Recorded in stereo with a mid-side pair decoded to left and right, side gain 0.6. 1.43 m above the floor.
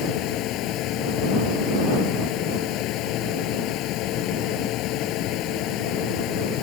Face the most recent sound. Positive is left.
turn(degrees=65)